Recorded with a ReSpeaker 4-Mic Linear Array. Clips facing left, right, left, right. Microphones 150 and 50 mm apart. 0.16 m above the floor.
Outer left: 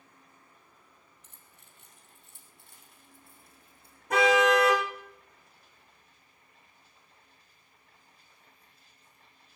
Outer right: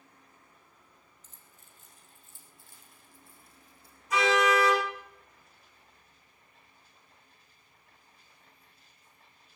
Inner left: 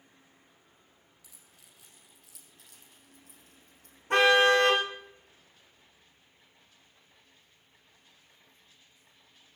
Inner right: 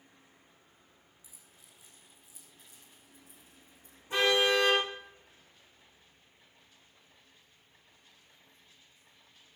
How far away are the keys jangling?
About 3 m.